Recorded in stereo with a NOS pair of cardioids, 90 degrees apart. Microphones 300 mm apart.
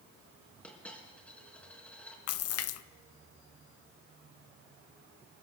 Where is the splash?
55° left, 0.6 m.